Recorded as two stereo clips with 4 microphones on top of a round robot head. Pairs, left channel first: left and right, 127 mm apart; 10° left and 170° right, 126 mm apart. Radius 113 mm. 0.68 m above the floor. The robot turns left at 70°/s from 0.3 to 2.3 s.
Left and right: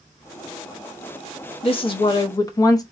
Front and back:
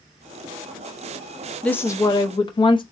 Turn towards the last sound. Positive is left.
turn(degrees=40)